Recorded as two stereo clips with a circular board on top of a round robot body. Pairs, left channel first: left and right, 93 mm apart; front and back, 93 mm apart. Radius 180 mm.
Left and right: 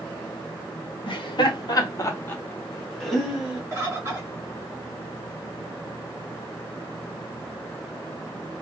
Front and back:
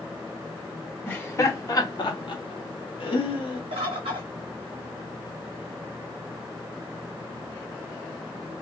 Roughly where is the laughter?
Left.